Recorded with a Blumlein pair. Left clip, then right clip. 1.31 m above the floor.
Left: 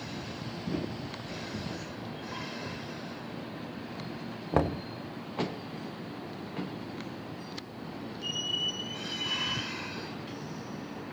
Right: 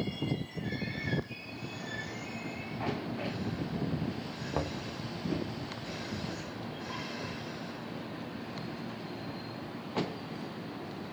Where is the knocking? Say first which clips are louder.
Left 7 dB; 65° left, 0.7 m.